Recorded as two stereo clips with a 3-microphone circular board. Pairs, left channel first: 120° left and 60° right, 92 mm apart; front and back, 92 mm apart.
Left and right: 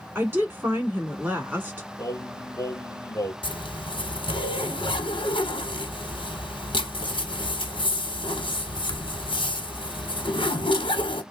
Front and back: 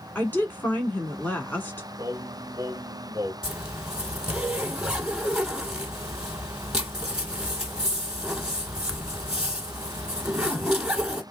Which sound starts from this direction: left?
A zipper, at 3.4 s.